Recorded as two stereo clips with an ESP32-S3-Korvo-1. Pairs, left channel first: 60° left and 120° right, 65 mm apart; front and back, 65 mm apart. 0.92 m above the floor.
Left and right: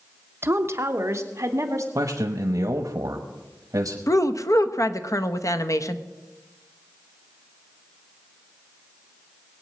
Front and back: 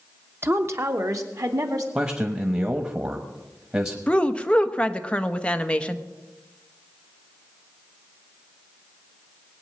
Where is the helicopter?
I don't hear a helicopter.